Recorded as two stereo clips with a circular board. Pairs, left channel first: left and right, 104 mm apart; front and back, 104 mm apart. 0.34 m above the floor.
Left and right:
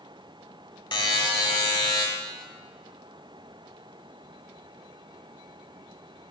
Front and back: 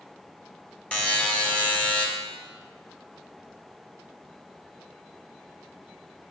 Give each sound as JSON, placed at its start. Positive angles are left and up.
{"t": 0.9, "sound": "a buzzer", "azimuth_deg": 75, "distance_m": 1.2}